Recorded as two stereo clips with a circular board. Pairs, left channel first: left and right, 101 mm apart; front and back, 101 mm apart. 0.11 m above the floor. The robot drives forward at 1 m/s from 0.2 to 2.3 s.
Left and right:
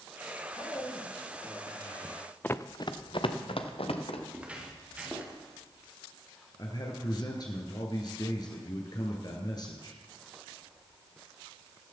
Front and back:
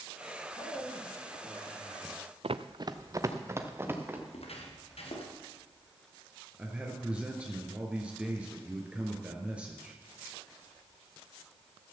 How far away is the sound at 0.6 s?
About 7 m.